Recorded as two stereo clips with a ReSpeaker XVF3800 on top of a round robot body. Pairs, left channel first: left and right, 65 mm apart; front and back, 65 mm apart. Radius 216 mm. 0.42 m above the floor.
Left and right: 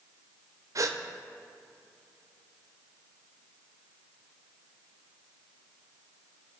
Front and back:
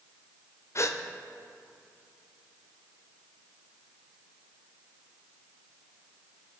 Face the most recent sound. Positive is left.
turn(degrees=-50)